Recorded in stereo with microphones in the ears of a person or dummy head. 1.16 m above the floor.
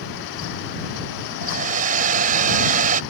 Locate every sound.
1.4 s a hair dryer: 45° right (ahead or behind)